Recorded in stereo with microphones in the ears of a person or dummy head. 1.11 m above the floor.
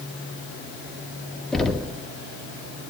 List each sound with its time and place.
1.5 s knocking: centre (ahead or behind), 2.5 m